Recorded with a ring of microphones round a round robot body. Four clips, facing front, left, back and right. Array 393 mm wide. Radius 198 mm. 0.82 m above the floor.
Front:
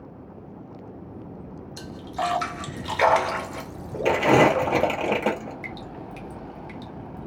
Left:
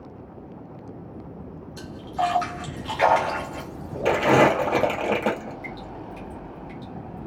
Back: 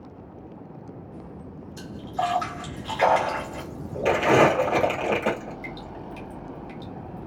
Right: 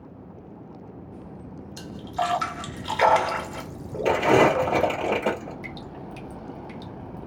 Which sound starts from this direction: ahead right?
A splash, at 1.8 s.